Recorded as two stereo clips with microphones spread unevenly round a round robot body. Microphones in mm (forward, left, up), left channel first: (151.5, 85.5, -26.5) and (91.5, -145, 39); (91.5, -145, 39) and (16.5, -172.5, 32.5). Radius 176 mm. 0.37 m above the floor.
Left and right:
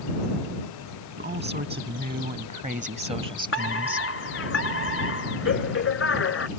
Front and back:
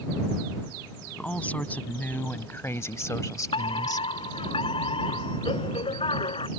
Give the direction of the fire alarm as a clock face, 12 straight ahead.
11 o'clock.